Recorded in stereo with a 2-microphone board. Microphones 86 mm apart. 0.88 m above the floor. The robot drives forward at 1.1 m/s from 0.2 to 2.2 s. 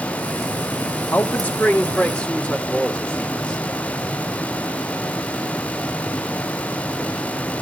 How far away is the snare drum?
No snare drum in this recording.